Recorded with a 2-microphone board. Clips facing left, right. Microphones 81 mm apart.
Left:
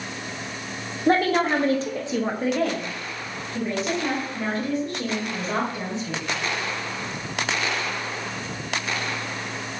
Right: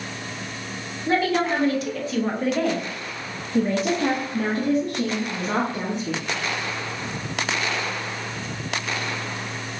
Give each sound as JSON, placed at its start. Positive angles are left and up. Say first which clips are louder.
{"t": 1.1, "sound": "a woman speaking", "louder": "left 2 dB", "side_deg": 50, "distance_m": 1.0}